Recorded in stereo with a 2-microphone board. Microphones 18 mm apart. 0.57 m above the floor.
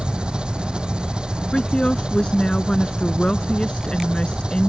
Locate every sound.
0.0 s an engine running: 65° right (ahead or behind)
1.5 s a woman speaking: 70° left (ahead or behind)